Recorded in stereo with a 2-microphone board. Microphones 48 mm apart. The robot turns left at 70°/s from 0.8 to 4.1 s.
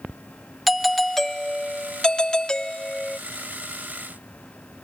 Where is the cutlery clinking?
No cutlery clinking in this recording.